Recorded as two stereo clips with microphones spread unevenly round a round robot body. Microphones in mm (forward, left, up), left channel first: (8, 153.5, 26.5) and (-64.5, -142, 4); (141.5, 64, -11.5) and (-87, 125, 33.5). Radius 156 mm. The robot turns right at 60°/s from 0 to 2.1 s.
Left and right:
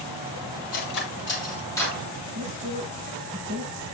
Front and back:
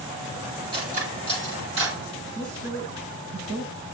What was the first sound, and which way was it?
Cutlery clinking, 95° left.